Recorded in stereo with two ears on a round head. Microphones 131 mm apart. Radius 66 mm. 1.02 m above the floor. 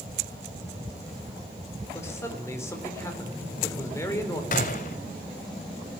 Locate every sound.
1.9 s a man speaking: 20° left (ahead or behind), 4 m
4.5 s a gunshot: 60° left (ahead or behind), 1.4 m